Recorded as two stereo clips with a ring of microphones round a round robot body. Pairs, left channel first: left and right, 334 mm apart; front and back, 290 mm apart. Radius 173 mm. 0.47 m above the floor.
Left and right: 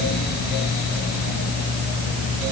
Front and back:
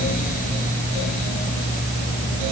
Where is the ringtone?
I don't hear a ringtone.